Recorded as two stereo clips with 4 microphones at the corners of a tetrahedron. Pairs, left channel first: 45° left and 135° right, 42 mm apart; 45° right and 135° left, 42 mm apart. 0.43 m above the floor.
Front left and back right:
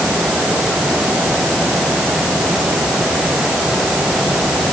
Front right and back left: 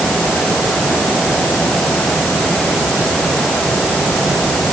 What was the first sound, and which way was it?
Only background noise.